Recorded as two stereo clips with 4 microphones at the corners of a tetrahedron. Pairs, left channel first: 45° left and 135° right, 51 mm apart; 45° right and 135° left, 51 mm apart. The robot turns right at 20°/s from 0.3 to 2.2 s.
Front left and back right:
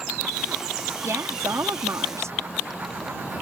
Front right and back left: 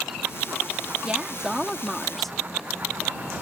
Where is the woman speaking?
155° right; by 2.4 s 130° right.